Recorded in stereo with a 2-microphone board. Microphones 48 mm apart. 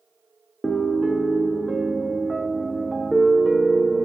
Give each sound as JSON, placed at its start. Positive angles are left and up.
{"t": 0.6, "sound": "a piano", "side_deg": 5, "distance_m": 0.7}